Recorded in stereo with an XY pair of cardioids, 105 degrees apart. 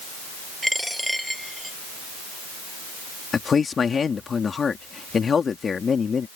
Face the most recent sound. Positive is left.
turn(degrees=40)